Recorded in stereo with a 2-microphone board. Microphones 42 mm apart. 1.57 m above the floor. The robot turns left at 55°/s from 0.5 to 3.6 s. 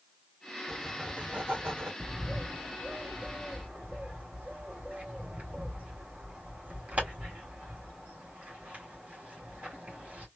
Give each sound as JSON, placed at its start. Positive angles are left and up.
{"t": 0.7, "sound": "writing", "azimuth_deg": -5, "distance_m": 1.2}
{"t": 2.0, "sound": "a bird", "side_deg": -50, "distance_m": 1.8}